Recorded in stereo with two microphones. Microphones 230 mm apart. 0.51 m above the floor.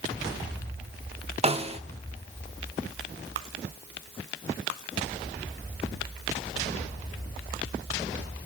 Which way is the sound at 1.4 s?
25° right (ahead or behind).